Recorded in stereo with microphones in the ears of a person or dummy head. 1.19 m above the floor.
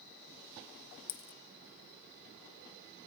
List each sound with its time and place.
1.1 s a dropped coin: 60° left (ahead or behind), 0.8 m